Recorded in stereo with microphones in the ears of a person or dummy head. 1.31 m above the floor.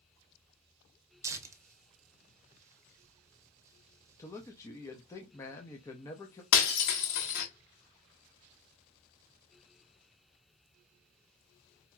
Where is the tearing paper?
15° right (ahead or behind), 0.8 m.